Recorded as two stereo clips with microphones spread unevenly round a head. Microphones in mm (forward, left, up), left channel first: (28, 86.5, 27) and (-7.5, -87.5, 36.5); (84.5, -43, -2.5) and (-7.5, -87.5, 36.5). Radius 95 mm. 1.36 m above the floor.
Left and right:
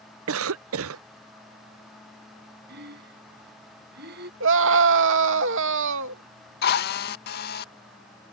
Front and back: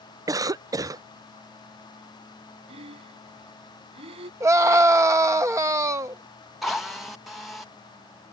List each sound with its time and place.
0.3 s a cough: 95° right
2.7 s breathing: 140° right
4.4 s a scream: 90° right
6.6 s a drill: 115° left